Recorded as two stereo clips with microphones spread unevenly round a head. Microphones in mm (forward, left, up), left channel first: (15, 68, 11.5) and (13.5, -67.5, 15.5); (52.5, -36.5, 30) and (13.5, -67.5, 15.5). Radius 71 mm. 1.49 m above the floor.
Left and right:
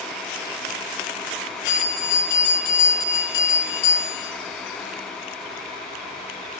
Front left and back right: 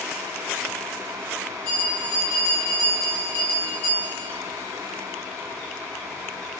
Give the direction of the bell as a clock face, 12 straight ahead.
8 o'clock.